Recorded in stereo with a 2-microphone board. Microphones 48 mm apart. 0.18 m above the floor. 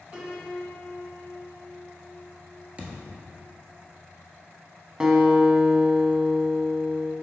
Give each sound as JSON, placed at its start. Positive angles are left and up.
{"t": 0.1, "sound": "a piano", "side_deg": -25, "distance_m": 2.0}
{"t": 2.8, "sound": "a thud", "side_deg": -30, "distance_m": 1.4}
{"t": 5.0, "sound": "a guitar", "side_deg": -20, "distance_m": 0.9}